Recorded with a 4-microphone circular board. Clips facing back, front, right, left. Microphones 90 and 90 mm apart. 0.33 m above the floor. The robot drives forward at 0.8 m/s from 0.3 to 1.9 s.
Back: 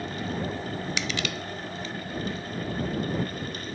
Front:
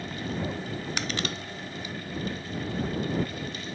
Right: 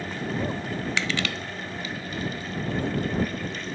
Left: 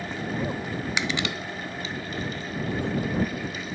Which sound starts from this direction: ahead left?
Crushing, at 1.0 s.